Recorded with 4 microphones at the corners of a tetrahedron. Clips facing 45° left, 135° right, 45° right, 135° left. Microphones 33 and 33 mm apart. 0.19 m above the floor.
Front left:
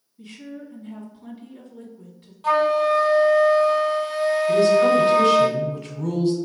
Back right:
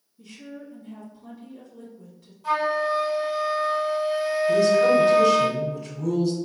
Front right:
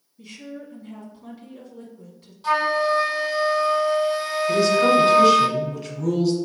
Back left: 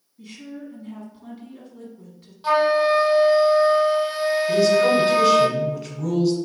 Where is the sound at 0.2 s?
60° left, 1.2 m.